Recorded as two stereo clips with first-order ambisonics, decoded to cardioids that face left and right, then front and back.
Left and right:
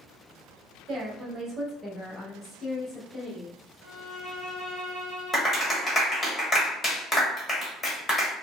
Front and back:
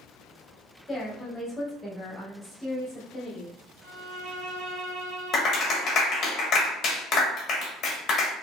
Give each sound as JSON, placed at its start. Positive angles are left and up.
{"t": 0.9, "sound": "a woman speaking", "azimuth_deg": -80, "distance_m": 0.9}
{"t": 3.8, "sound": "a violin", "azimuth_deg": 160, "distance_m": 1.7}
{"t": 5.3, "sound": "a clap", "azimuth_deg": 30, "distance_m": 0.8}